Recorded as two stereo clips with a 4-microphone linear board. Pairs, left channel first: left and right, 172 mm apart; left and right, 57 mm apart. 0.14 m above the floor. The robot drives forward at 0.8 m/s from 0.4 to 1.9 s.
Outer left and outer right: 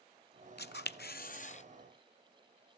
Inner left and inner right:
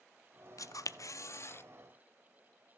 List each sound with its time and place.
0.6 s a camera shutter: 70° left (ahead or behind), 0.7 m; by 1.6 s 40° left (ahead or behind), 0.9 m